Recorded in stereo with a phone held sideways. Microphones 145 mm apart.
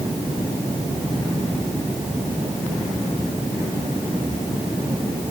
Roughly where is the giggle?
I don't hear a giggle.